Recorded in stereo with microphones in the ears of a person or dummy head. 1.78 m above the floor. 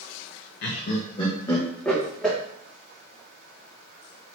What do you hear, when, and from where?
0.6 s laughter: 55° left (ahead or behind), 0.5 m; by 2.4 s 5° right (ahead or behind), 1.2 m